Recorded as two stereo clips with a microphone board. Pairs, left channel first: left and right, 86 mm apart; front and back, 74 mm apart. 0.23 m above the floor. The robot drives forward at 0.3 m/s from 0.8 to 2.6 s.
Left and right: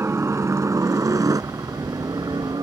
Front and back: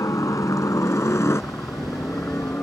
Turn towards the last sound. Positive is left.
turn(degrees=-60)